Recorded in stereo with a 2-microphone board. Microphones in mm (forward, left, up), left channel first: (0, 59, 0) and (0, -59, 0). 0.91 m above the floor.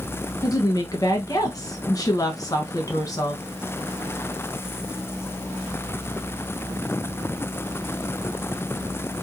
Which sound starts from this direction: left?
A woman speaking, at 0.4 s.